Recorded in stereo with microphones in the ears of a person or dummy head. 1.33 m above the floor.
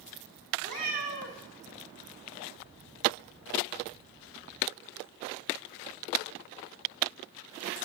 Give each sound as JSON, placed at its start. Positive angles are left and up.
{"t": 0.6, "sound": "a cat meowing", "side_deg": -45, "distance_m": 1.0}